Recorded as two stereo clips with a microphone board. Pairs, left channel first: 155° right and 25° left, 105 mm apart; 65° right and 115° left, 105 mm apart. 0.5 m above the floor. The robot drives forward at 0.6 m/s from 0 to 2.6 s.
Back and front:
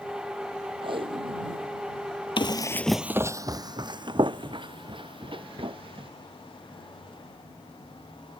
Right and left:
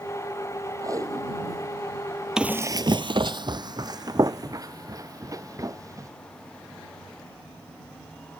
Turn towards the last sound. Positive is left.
turn(degrees=55)